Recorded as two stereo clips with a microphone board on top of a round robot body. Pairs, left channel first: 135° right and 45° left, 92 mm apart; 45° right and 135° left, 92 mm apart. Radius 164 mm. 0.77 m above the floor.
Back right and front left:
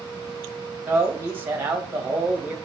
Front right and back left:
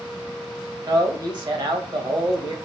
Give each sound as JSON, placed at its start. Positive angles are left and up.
{"t": 0.9, "sound": "a man speaking", "azimuth_deg": 110, "distance_m": 1.5}